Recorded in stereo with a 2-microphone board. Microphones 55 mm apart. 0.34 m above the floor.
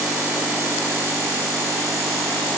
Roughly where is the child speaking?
I don't hear a child speaking.